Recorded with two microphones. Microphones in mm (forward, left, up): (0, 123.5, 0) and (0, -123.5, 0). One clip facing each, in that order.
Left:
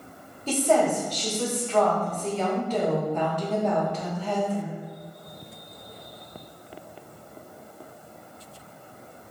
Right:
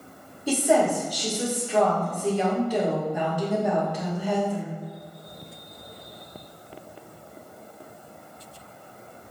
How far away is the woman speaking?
About 1.9 m.